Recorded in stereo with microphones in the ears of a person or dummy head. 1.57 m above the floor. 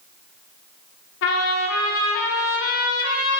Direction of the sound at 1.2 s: 60° left (ahead or behind).